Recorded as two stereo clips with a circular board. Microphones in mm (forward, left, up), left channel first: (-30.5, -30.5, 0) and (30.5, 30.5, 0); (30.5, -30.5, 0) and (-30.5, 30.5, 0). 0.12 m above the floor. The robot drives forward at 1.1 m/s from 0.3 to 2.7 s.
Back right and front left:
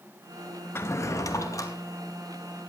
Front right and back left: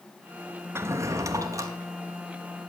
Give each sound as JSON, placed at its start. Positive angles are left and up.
{"t": 0.8, "sound": "a drawer", "azimuth_deg": 180, "distance_m": 0.7}